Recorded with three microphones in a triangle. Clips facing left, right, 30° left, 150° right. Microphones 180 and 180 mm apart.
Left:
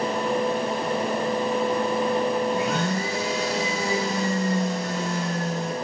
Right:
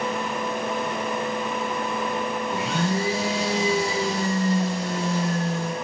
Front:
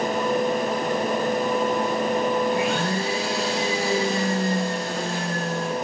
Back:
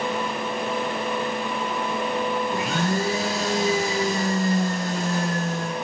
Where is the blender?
100° right, 5.5 m.